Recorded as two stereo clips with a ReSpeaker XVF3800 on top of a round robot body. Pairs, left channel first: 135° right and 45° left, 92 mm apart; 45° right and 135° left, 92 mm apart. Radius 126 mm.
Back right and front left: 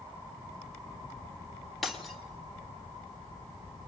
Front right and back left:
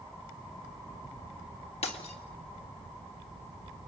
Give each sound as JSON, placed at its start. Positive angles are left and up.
{"t": 1.8, "sound": "breaking glass", "azimuth_deg": -45, "distance_m": 2.0}